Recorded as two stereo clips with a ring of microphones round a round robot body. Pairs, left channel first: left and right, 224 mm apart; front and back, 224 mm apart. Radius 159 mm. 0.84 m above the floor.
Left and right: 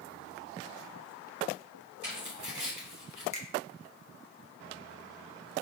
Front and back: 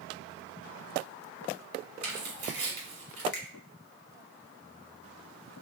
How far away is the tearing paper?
About 1.5 m.